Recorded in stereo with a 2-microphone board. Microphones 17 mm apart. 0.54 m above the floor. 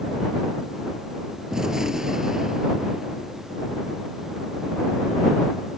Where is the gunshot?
35° right (ahead or behind).